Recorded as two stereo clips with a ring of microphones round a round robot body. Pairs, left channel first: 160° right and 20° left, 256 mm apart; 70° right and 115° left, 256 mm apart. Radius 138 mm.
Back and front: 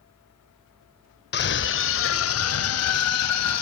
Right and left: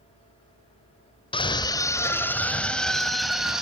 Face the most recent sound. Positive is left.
turn(degrees=-160)